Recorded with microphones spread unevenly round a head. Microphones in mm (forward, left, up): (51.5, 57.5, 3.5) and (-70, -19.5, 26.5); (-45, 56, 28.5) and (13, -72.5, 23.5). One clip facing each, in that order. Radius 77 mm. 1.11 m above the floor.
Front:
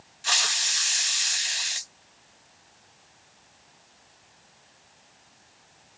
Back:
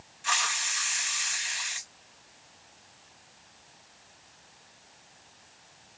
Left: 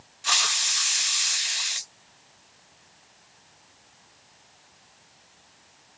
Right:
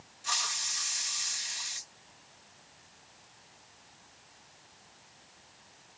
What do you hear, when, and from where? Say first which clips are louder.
0.2 s a hiss: back 1 dB, left 7 dB; 80° left